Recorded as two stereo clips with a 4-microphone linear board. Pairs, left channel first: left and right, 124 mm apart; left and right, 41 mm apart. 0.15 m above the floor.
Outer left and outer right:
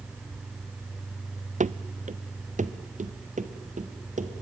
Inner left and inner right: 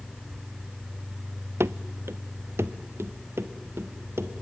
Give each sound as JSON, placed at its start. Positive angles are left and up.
{"t": 1.6, "sound": "running footsteps", "side_deg": -80, "distance_m": 0.6}